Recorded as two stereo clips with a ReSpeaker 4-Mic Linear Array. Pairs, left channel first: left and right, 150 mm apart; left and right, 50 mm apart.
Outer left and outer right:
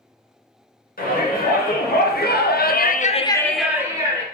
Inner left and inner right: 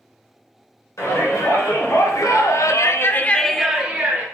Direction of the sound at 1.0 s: 70° left (ahead or behind).